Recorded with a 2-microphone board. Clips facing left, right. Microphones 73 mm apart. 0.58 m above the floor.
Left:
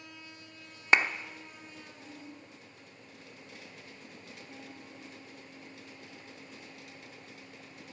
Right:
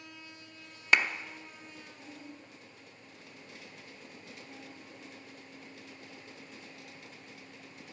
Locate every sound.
0.9 s a clap: 25° left (ahead or behind), 0.8 m